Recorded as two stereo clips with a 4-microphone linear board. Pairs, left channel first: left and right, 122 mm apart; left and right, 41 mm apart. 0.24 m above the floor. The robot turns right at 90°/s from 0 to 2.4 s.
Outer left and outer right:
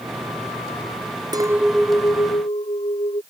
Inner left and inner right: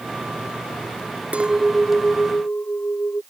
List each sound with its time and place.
1.3 s a clink: 35° right; by 3.2 s 60° left